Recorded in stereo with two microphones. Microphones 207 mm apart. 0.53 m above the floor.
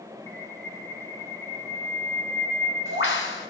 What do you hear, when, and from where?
0.3 s a bird: 75° left (ahead or behind), 1.5 m